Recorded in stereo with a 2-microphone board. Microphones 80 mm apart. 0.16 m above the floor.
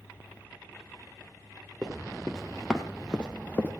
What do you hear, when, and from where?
1.8 s running footsteps: 10° right (ahead or behind), 3 m; by 3.7 s 20° left (ahead or behind), 1.7 m